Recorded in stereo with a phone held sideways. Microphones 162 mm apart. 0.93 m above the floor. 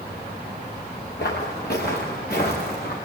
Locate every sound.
1.2 s footsteps: 65° left (ahead or behind), 5.5 m; by 3.0 s 60° left (ahead or behind), 6 m